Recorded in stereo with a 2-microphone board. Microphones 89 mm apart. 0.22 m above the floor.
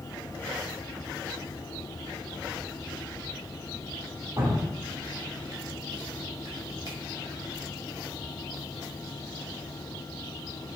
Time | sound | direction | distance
4.4 | dripping | 40° right (ahead or behind) | 1.0 m